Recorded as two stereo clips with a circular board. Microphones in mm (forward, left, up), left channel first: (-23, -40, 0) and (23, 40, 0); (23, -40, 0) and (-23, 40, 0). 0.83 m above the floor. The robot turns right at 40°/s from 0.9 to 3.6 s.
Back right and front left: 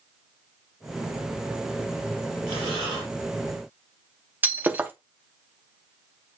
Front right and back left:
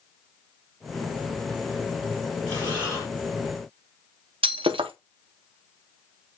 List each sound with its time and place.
2.5 s breathing: straight behind, 4 m; by 3.1 s 155° right, 4 m
4.4 s breaking glass: 130° left, 0.7 m